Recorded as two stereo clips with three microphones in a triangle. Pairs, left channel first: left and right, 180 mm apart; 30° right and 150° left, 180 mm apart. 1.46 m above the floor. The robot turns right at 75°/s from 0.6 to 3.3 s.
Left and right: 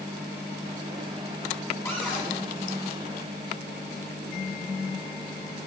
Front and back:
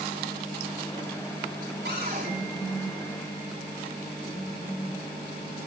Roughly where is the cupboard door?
Behind.